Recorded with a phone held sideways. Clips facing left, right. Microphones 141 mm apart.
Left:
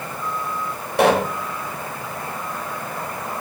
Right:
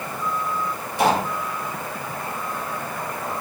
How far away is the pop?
About 5.5 m.